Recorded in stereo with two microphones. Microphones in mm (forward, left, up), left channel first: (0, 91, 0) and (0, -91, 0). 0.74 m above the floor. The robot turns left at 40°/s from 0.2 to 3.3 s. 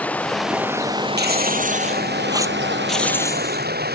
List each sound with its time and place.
0.0 s running water: 10° left; by 4.0 s 115° right
1.2 s tearing paper: 110° right; by 3.7 s 165° left